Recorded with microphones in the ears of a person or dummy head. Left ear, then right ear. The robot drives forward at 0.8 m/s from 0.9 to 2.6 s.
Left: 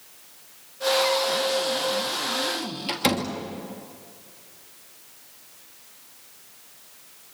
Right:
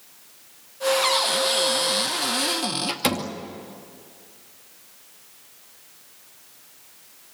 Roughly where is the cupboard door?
Right.